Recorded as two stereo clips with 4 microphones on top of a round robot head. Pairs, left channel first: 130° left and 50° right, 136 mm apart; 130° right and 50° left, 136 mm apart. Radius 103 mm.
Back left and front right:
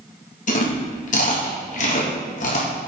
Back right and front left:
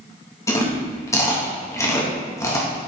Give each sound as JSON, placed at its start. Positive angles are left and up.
{"t": 0.5, "sound": "chewing", "azimuth_deg": 160, "distance_m": 2.0}